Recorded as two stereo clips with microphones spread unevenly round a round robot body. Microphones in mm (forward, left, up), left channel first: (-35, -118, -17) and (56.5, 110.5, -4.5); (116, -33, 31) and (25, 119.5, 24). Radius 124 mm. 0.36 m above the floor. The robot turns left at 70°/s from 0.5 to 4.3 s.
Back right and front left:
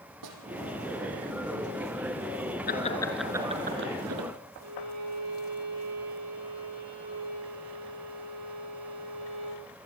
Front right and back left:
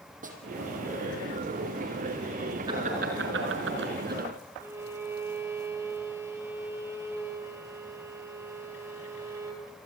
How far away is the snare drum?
About 5.5 m.